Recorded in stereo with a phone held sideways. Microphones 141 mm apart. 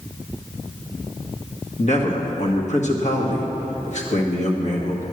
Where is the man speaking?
55° left (ahead or behind), 1.8 m.